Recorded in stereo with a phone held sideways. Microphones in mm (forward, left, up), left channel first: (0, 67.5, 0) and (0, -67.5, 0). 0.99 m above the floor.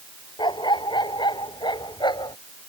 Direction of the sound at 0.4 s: 30° left (ahead or behind).